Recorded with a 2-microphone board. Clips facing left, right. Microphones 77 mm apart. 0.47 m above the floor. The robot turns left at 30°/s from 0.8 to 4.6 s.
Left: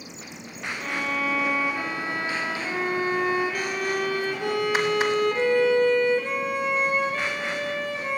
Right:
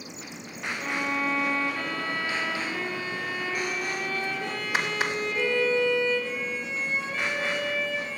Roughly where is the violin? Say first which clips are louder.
Left 1 dB; behind.